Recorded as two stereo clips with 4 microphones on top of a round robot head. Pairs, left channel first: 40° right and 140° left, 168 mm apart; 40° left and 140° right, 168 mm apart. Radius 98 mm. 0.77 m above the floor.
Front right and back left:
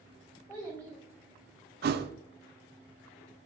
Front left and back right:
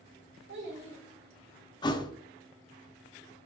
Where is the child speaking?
115° right, 1.4 m.